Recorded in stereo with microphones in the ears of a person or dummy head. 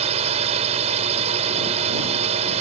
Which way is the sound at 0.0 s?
35° right (ahead or behind).